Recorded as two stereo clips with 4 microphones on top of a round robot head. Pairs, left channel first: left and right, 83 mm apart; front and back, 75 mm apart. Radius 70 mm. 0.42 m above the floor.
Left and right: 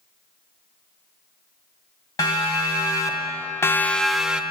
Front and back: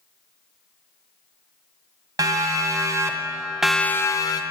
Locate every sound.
2.2 s a siren: 145° left, 2.5 m; by 4.4 s 10° right, 1.1 m